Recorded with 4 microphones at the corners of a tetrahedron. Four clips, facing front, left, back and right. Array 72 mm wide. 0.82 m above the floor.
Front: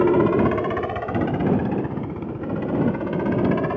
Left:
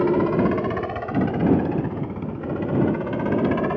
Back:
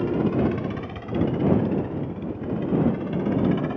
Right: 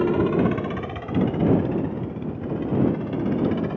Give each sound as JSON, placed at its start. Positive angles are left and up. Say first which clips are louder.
{"t": 0.0, "sound": "a helicopter", "louder": "left 1 dB, front 6 dB", "azimuth_deg": 20}